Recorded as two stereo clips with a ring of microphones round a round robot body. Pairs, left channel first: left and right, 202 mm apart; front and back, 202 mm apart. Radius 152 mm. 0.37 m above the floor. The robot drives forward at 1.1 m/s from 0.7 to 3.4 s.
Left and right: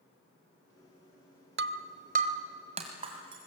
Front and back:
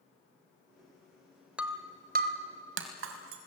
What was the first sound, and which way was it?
Breaking glass, 95° right.